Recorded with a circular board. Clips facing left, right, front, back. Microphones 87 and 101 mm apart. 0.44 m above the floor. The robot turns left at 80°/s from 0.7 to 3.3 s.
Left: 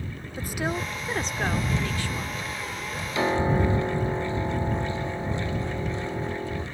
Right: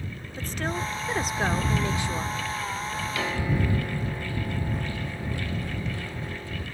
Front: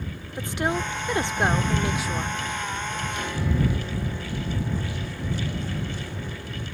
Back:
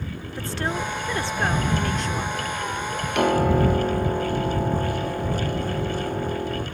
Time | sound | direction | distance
0.4 | a woman speaking | 30° left | ?
3.1 | a piano | 160° left | ?